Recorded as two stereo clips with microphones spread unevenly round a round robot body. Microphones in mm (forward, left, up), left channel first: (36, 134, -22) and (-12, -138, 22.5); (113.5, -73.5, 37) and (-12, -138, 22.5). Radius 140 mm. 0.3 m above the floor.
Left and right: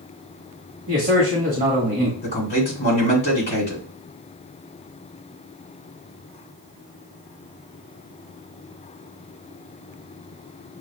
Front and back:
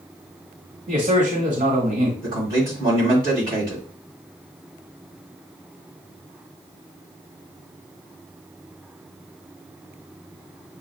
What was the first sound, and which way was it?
A man speaking, 165° right.